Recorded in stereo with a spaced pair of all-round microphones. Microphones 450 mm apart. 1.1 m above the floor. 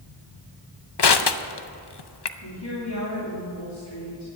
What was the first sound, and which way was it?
Crushing, 65° left (ahead or behind).